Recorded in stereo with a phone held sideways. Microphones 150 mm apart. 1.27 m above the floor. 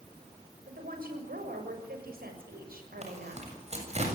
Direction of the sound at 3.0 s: 50° right (ahead or behind).